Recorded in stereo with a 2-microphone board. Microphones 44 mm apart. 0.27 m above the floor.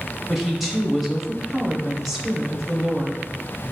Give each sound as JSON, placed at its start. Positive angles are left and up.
{"t": 0.3, "sound": "a woman speaking", "side_deg": -5, "distance_m": 0.9}